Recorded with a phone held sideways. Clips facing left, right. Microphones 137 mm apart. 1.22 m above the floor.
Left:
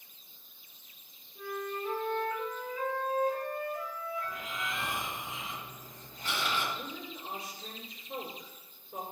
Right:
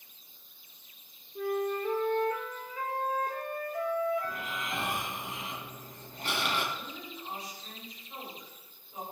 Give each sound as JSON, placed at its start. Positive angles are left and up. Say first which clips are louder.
{"t": 1.4, "sound": "a flute", "louder": "right 7 dB", "side_deg": -75, "distance_m": 2.5}
{"t": 4.2, "sound": "snoring", "louder": "right 2 dB", "side_deg": -80, "distance_m": 3.0}
{"t": 6.7, "sound": "a woman speaking", "louder": "left 1 dB", "side_deg": 80, "distance_m": 4.5}